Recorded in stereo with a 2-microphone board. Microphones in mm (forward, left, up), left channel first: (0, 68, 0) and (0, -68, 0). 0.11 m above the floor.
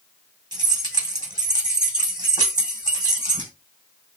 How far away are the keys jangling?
About 4.5 m.